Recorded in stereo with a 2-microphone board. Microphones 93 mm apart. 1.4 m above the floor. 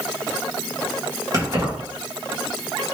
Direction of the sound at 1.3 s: 40° right (ahead or behind).